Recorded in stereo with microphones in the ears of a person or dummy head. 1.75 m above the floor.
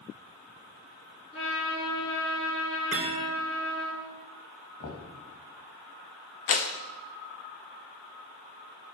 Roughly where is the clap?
Left.